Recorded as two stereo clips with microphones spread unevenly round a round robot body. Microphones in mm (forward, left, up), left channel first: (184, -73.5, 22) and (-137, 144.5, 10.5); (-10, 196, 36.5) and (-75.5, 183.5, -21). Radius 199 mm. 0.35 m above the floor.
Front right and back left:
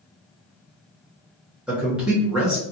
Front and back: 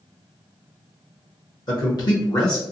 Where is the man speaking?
65° left, 1.0 m.